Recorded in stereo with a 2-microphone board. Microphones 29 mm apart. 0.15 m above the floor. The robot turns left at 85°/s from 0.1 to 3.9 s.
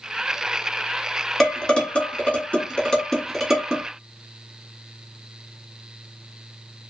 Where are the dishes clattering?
10° left (ahead or behind), 1.1 m; by 3.9 s 35° right (ahead or behind), 1.1 m.